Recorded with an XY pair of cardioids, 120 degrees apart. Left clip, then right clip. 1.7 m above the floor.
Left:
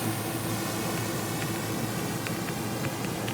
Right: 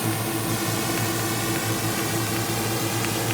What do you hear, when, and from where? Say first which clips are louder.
0.0 s a drone: right 5 dB; 30° right; by 3.4 s 55° right